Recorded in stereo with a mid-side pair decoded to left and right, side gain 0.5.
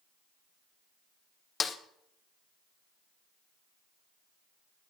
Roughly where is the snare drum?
Ahead left.